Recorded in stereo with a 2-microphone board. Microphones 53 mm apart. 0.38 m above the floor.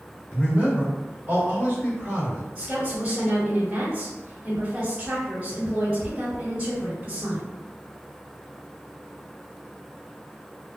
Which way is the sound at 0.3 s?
40° right (ahead or behind).